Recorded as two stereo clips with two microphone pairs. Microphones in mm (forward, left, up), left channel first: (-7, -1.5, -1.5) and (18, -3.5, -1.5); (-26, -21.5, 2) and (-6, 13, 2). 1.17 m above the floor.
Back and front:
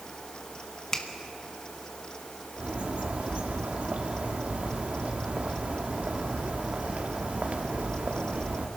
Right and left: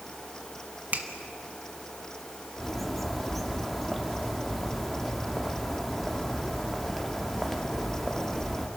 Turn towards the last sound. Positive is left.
turn(degrees=-35)